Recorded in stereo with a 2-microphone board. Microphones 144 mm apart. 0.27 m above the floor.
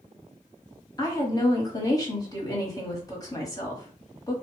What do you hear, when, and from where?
1.0 s a woman speaking: 25° left (ahead or behind), 1.2 m